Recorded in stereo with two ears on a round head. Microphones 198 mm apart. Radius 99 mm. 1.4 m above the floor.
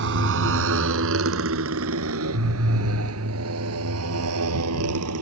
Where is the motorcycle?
60° right (ahead or behind); by 5.2 s 80° right.